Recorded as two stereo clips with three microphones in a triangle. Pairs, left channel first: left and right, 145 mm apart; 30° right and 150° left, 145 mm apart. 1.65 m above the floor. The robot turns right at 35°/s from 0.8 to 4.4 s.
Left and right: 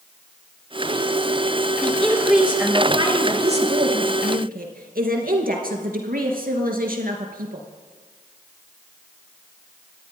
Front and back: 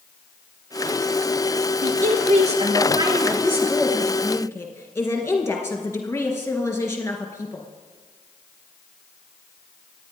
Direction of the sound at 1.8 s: 165° left.